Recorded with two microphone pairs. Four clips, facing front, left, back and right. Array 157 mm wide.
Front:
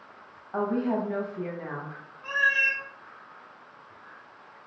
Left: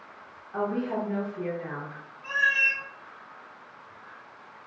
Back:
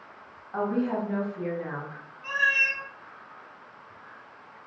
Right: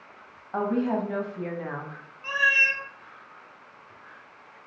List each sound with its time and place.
0.5 s a woman speaking: 65° right, 0.9 m
2.2 s a cat meowing: 45° right, 0.7 m